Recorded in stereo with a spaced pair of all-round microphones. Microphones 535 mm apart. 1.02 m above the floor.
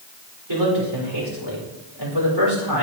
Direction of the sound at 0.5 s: 55° right (ahead or behind).